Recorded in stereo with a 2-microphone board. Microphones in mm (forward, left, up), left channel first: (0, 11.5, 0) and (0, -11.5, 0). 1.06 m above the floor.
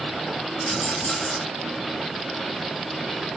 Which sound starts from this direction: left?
A rattle, at 0.7 s.